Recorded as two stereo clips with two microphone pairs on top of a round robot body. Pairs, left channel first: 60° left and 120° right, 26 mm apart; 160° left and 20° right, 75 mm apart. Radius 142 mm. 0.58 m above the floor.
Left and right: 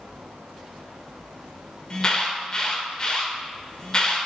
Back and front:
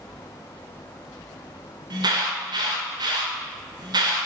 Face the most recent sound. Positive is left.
turn(degrees=0)